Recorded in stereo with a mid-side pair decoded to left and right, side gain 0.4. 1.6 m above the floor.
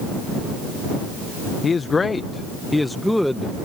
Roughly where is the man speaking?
Ahead left.